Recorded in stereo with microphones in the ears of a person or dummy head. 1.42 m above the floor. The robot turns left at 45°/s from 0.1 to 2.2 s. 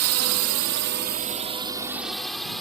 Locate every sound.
0.0 s a drone: 75° right (ahead or behind); by 2.6 s centre (ahead or behind)